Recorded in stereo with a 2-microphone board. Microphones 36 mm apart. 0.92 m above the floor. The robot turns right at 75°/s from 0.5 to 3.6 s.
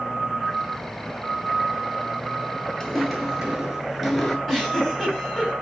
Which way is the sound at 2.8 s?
10° left (ahead or behind).